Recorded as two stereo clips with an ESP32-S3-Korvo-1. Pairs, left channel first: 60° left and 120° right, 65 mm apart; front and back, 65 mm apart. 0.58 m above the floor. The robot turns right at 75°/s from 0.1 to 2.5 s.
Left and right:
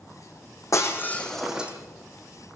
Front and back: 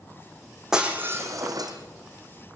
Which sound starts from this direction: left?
Breaking glass, at 0.7 s.